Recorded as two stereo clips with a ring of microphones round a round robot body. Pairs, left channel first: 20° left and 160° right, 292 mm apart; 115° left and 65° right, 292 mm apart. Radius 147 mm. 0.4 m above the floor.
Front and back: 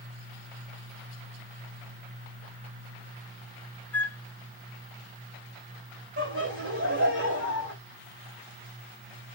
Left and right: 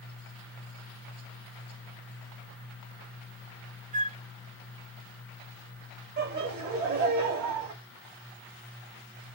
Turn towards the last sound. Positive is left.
turn(degrees=-115)